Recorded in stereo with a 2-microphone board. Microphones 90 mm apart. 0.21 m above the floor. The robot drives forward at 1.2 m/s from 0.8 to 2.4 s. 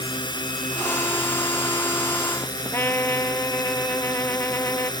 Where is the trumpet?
25° left (ahead or behind).